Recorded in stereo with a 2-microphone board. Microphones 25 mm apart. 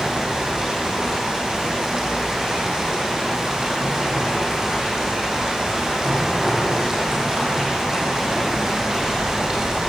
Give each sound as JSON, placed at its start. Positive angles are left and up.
{"t": 0.0, "sound": "running water", "side_deg": -20, "distance_m": 6.5}